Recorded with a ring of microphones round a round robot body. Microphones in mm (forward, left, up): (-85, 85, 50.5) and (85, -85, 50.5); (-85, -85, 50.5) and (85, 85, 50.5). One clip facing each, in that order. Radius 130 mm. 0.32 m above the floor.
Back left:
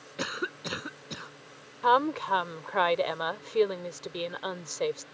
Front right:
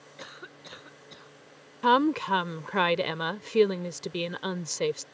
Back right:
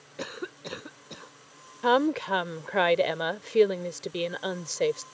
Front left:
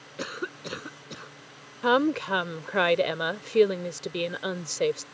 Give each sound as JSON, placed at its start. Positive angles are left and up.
{"t": 0.2, "sound": "a cough", "azimuth_deg": 120}
{"t": 1.8, "sound": "a woman speaking", "azimuth_deg": -30}